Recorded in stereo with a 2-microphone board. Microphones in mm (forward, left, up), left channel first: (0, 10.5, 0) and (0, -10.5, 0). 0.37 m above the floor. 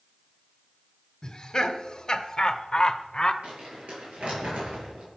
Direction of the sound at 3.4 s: 70° right (ahead or behind).